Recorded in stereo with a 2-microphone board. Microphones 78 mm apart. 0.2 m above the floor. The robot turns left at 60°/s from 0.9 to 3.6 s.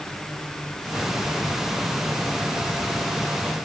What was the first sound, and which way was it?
Only background noise.